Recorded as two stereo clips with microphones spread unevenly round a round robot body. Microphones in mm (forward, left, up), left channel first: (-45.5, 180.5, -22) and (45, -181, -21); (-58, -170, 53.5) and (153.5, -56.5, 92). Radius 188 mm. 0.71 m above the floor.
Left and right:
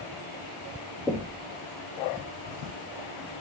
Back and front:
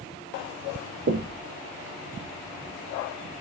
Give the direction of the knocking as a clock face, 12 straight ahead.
12 o'clock.